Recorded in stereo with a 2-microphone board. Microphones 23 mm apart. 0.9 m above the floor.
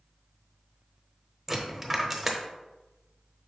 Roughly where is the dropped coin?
Centre.